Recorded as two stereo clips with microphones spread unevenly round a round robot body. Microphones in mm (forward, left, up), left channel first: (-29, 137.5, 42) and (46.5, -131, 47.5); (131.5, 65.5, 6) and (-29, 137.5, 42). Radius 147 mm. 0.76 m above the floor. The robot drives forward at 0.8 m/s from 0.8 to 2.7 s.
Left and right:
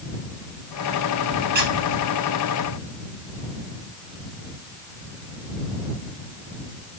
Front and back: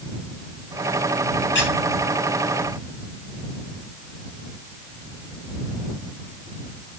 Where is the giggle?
I don't hear a giggle.